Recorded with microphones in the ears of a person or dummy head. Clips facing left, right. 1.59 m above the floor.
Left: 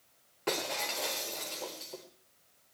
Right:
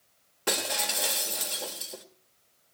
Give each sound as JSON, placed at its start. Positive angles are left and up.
{"t": 0.5, "sound": "breaking glass", "side_deg": -5, "distance_m": 1.3}